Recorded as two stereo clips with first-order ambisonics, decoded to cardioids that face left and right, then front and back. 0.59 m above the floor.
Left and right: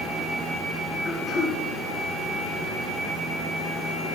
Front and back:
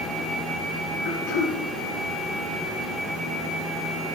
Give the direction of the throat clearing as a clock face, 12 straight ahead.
12 o'clock.